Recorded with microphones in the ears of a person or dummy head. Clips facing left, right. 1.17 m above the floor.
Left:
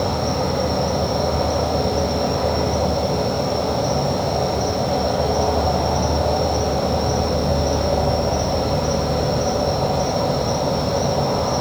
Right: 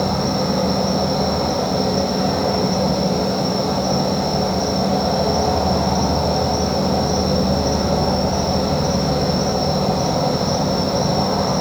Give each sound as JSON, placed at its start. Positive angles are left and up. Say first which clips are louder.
{"t": 0.0, "sound": "an insect", "louder": "right 1 dB", "side_deg": -25, "distance_m": 1.0}